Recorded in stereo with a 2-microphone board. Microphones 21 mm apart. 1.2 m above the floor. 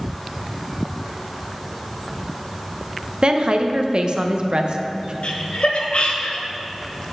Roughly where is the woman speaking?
Right.